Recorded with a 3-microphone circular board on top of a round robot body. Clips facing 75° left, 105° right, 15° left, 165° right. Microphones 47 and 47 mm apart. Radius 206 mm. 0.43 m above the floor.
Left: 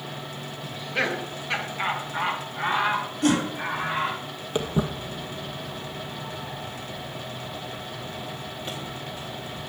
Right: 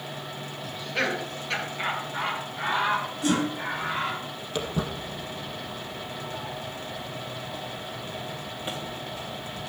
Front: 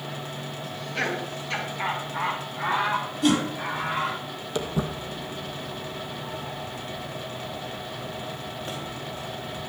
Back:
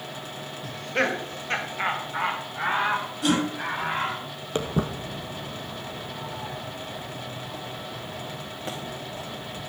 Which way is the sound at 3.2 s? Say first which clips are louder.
Left 4 dB, front 2 dB; 105° left.